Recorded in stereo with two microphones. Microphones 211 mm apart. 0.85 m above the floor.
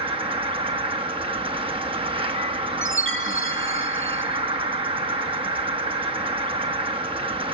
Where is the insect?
25° right (ahead or behind), 1.0 m.